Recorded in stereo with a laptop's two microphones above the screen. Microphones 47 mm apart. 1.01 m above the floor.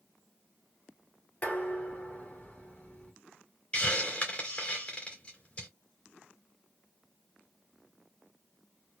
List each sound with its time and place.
1.4 s dishes clattering: 30° left (ahead or behind), 2 m
3.7 s a hiss: 30° left (ahead or behind), 2.5 m